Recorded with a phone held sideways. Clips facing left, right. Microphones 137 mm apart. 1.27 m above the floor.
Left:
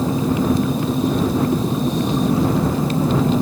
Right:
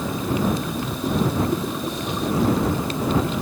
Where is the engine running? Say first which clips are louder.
Left 5 dB; 35° left (ahead or behind).